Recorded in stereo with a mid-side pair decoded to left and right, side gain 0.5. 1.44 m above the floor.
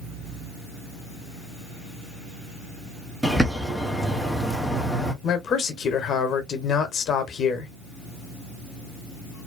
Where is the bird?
5° right, 0.9 m.